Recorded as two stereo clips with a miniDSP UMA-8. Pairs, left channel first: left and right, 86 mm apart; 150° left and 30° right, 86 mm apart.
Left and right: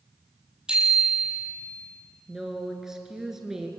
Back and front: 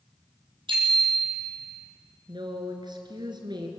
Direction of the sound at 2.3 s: 5° right.